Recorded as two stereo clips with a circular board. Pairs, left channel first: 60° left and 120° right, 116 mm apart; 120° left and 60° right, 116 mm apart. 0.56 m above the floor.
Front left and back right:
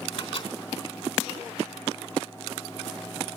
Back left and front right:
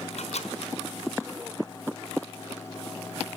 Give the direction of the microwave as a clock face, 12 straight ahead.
9 o'clock.